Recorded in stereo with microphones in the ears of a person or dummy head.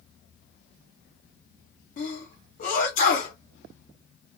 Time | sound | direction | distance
2.0 | a sneeze | 45° left (ahead or behind) | 1.5 m